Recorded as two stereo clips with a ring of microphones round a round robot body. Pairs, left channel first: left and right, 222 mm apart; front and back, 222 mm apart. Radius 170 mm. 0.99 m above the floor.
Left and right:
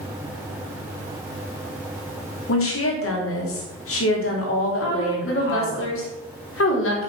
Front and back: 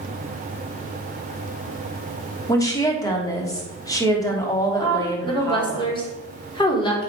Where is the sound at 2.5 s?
75° left, 3 m.